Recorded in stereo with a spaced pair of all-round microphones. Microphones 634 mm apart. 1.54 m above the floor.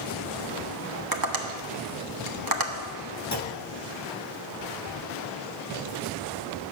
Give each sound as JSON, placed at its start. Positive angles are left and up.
{"t": 1.1, "sound": "tapping", "side_deg": -35, "distance_m": 1.1}
{"t": 3.3, "sound": "a clunk", "side_deg": 25, "distance_m": 1.0}